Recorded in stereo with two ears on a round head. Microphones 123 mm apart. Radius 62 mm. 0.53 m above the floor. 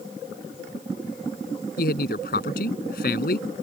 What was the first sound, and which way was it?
A man speaking, 70° left (ahead or behind).